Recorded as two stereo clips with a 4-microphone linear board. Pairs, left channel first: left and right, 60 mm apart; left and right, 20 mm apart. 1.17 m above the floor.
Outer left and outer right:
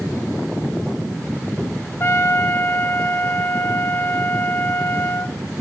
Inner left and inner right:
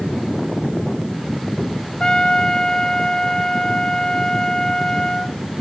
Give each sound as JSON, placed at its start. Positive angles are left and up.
{"t": 2.0, "sound": "a trumpet", "side_deg": 45, "distance_m": 0.9}